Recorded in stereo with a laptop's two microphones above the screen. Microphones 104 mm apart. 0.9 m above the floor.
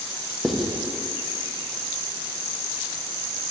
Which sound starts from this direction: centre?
Writing, at 0.4 s.